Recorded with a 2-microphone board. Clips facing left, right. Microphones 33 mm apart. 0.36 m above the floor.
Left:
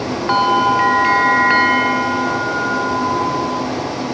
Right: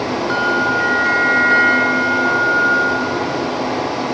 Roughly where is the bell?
Left.